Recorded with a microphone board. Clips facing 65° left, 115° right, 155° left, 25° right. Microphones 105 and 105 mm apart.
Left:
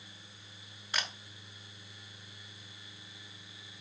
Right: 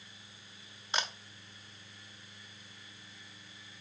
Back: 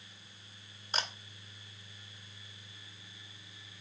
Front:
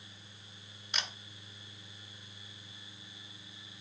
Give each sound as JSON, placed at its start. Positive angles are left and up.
{"t": 0.9, "sound": "a camera shutter", "azimuth_deg": -170, "distance_m": 1.1}